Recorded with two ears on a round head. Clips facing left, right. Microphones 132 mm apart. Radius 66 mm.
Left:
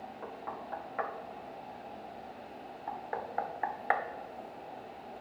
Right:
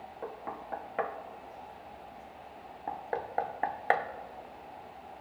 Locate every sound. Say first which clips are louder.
0.2 s knocking: right 3 dB; 35° right (ahead or behind), 0.7 m